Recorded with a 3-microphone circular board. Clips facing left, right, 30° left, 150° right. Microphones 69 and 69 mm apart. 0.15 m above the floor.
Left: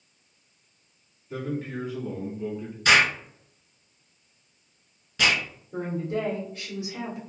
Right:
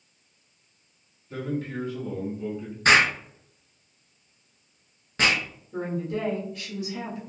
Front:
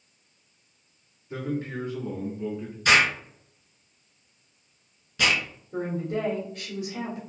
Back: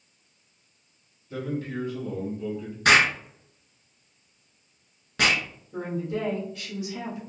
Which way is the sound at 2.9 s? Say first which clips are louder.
Right 1 dB, back 1 dB; 135° right.